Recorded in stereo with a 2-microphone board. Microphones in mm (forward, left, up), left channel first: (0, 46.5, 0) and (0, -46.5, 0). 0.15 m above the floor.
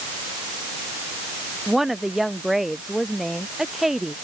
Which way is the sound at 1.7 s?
5° right (ahead or behind).